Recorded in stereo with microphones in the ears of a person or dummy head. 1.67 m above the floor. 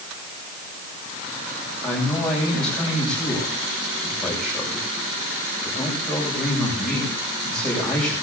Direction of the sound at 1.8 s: Centre (ahead or behind).